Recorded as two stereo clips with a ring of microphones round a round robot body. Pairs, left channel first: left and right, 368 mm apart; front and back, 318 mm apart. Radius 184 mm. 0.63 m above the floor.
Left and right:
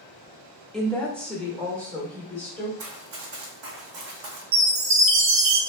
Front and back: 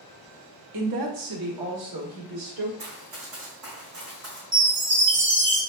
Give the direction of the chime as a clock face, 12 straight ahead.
4 o'clock.